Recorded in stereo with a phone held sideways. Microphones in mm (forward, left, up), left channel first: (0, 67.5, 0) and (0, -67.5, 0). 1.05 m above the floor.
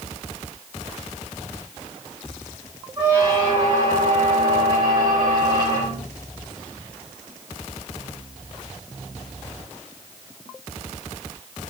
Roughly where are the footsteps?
No footsteps in this recording.